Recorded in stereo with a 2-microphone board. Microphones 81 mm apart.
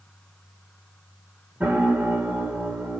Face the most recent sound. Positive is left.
turn(degrees=-20)  # may be behind; listen again after turning